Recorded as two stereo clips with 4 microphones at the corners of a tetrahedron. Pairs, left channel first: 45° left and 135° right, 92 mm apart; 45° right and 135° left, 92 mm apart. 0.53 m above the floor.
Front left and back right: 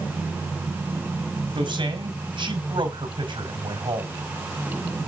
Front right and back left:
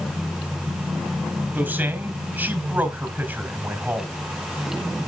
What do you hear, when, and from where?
1.6 s a man speaking: 150° right, 3 m